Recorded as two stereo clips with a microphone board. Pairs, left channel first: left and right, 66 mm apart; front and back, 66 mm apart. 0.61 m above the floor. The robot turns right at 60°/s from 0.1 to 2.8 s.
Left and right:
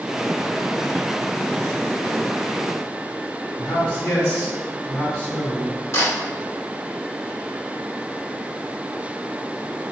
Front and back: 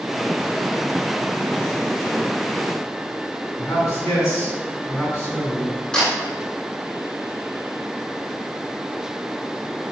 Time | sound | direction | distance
3.6 | a man speaking | 35° left | 1.8 m
5.9 | a camera shutter | 70° left | 1.2 m